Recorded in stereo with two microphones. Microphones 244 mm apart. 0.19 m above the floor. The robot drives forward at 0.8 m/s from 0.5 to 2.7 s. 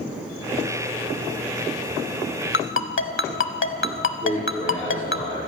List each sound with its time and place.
2.5 s a ringtone: 55° left (ahead or behind), 0.6 m
4.2 s a man speaking: 30° right (ahead or behind), 4 m